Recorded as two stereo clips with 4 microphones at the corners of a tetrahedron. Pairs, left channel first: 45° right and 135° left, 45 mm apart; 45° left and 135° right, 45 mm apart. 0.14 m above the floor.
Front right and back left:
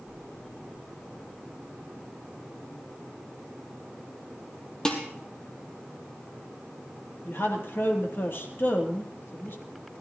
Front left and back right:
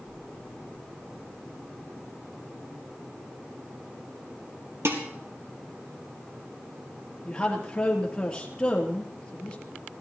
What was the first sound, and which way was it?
Dishes clattering, 115° right.